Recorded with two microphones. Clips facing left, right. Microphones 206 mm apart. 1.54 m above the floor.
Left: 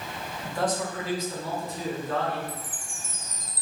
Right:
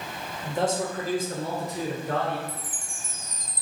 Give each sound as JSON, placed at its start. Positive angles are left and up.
{"t": 0.4, "sound": "a man speaking", "side_deg": -15, "distance_m": 0.7}
{"t": 2.5, "sound": "a chime", "side_deg": 5, "distance_m": 0.5}